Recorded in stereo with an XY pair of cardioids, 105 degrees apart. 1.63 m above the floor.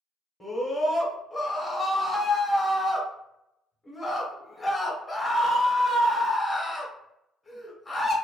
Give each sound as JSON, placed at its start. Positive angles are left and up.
{"t": 0.4, "sound": "a scream", "azimuth_deg": 10, "distance_m": 0.8}